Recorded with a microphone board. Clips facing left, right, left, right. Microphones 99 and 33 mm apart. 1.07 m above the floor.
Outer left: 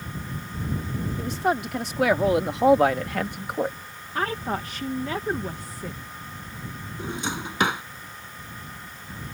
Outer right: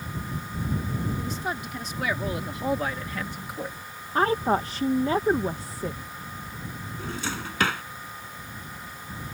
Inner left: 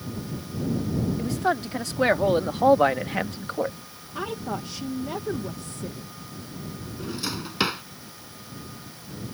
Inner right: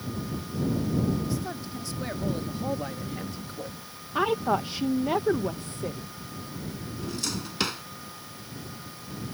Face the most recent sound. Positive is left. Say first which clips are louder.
# outer left 3 dB, inner left 2 dB
turn(degrees=20)  # may be behind; listen again after turning